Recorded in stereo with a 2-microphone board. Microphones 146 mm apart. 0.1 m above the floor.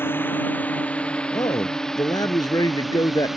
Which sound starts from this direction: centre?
A drone, at 0.0 s.